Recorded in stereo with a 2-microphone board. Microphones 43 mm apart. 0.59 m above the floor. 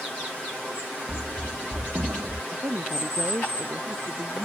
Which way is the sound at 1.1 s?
70° right (ahead or behind).